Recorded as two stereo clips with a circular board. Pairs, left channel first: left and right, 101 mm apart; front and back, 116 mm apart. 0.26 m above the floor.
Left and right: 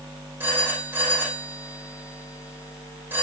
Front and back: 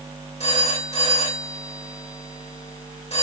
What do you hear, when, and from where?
0.4 s a phone ringing: 20° right, 5.5 m